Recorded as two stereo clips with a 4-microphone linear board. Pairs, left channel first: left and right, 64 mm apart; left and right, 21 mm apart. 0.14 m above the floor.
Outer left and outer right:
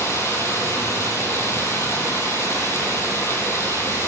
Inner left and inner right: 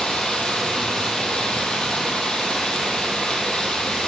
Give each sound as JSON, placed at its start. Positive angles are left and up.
{"t": 0.0, "sound": "running water", "side_deg": 40, "distance_m": 1.6}